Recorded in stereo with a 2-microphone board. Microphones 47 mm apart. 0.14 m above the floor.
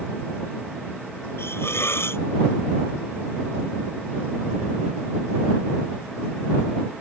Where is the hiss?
65° left (ahead or behind).